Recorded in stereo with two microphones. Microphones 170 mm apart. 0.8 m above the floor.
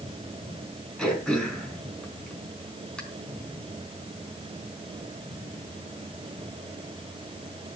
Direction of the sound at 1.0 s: 5° left (ahead or behind).